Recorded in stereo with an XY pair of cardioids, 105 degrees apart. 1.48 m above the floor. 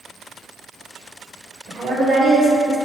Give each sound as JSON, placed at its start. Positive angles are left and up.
{"t": 1.7, "sound": "a woman speaking", "azimuth_deg": -55, "distance_m": 1.1}